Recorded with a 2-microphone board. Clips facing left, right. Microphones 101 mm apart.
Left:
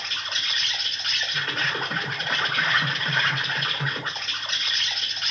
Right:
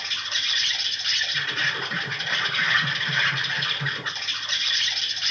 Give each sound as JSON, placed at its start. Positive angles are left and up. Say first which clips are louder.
{"t": 0.0, "sound": "an insect", "louder": "left 1 dB", "side_deg": 45, "distance_m": 1.1}